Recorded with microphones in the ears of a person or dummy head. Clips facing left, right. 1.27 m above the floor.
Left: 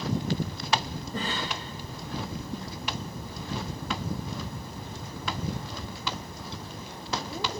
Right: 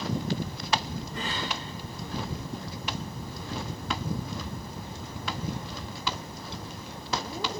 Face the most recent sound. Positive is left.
turn(degrees=35)  # may be behind; listen again after turning